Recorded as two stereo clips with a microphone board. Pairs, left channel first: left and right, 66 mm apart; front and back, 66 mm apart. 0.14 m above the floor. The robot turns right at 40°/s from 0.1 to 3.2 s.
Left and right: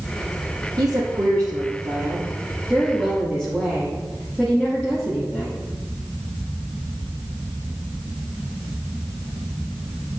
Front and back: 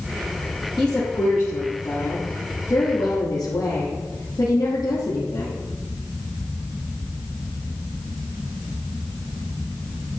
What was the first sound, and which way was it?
A woman speaking, 90° right.